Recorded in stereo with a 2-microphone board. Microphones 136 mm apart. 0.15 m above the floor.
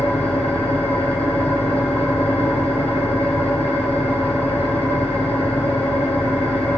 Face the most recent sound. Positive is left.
turn(degrees=45)  # may be behind; listen again after turning